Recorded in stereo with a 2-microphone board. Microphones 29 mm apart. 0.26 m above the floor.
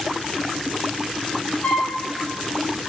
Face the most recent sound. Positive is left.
turn(degrees=40)  # may be behind; listen again after turning